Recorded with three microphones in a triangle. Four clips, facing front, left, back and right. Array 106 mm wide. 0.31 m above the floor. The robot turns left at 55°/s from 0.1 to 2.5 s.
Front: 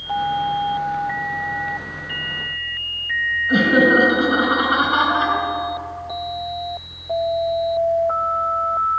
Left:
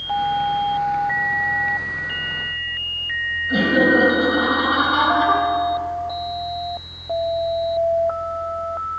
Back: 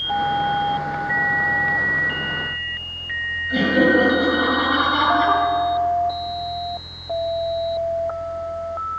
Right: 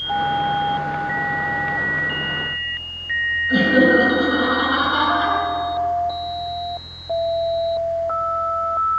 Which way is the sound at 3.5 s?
Straight ahead.